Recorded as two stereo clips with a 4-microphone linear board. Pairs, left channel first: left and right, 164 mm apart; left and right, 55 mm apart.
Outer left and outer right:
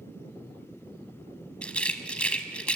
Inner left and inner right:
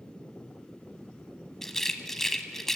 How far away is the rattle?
About 1.0 m.